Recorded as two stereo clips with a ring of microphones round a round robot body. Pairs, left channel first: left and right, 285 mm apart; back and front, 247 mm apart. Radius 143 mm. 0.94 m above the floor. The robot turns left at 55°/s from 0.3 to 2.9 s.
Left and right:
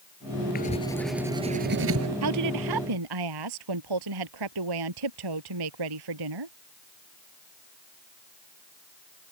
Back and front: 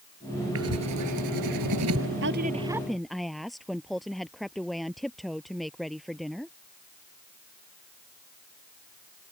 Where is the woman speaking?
50° right; by 6.5 s 90° right.